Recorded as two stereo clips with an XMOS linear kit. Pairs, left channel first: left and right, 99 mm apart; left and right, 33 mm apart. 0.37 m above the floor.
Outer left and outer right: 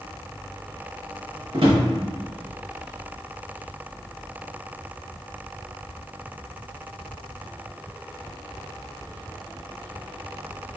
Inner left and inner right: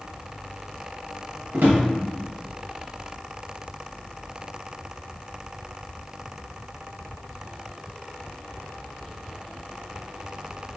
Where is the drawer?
65° right (ahead or behind), 0.9 m.